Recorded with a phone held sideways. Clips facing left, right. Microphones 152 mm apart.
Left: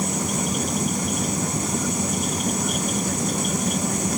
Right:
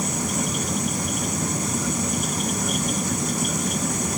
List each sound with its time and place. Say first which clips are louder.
0.0 s a fan: left 1 dB; 25° left (ahead or behind), 0.8 m